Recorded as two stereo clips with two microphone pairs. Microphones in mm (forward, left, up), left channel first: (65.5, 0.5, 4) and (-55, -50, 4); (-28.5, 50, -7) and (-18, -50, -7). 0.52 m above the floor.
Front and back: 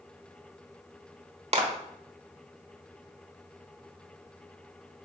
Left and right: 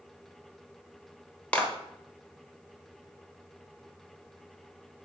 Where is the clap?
170° left, 1.2 m.